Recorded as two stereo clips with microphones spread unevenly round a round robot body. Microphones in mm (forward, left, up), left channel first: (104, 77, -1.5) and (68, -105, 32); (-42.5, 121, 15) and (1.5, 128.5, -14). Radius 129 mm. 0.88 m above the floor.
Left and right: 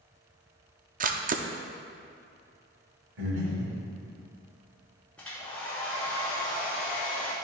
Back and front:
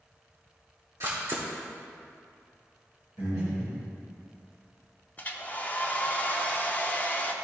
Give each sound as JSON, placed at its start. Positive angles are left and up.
{"t": 1.0, "sound": "a camera shutter", "azimuth_deg": -65, "distance_m": 0.6}
{"t": 3.2, "sound": "breathing", "azimuth_deg": -95, "distance_m": 2.5}
{"t": 5.2, "sound": "a hair dryer", "azimuth_deg": 170, "distance_m": 0.6}